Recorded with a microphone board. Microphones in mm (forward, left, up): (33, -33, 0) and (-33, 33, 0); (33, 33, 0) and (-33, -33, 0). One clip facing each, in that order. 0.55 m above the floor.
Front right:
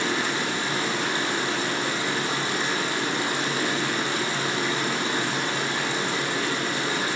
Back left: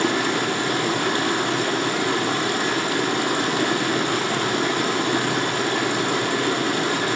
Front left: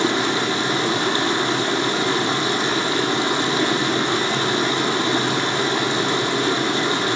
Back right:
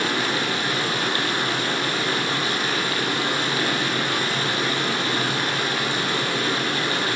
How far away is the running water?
About 1.8 m.